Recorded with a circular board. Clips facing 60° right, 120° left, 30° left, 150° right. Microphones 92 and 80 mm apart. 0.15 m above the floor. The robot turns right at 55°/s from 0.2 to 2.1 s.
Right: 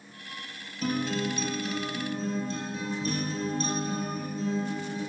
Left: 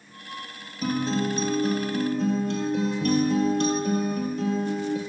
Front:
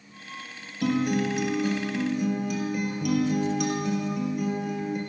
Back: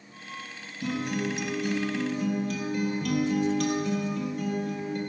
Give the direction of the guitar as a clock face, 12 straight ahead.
11 o'clock.